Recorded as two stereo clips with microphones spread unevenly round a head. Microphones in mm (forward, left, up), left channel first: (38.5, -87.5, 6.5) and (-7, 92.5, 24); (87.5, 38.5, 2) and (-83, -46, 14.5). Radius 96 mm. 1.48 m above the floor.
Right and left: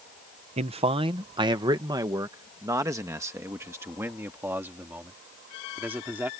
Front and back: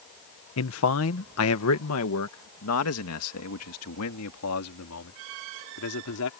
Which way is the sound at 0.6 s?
45° left.